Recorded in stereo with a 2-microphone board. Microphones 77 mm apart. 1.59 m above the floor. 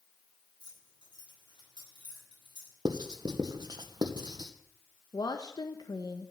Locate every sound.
0.6 s keys jangling: 85° left, 9.5 m; by 2.8 s 80° left, 7.5 m
2.9 s writing: 60° right (ahead or behind), 1.5 m
5.1 s a woman speaking: 60° left (ahead or behind), 1.3 m